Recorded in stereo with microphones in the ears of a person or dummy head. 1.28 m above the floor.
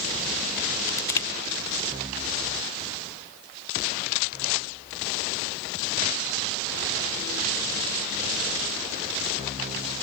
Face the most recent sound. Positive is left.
turn(degrees=15)  # may be behind; listen again after turning